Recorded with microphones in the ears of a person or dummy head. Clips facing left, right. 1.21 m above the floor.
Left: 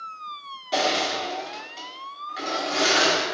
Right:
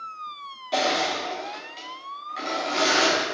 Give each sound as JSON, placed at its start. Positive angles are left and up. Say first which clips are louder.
{"t": 0.7, "sound": "crushing", "louder": "even", "side_deg": 10, "distance_m": 1.4}